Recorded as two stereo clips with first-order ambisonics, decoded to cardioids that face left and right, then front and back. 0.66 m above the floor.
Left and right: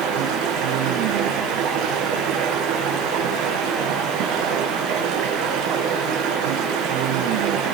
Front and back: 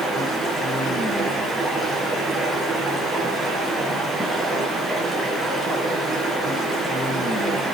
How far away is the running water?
About 4.5 m.